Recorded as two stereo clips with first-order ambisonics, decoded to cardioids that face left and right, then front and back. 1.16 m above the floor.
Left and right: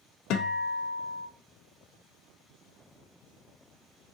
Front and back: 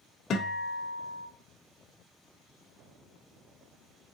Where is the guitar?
55° left, 0.6 m.